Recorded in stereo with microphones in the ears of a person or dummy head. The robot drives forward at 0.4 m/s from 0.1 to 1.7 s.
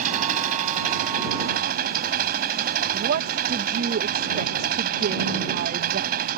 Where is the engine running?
50° right (ahead or behind); by 6.4 s 55° right (ahead or behind).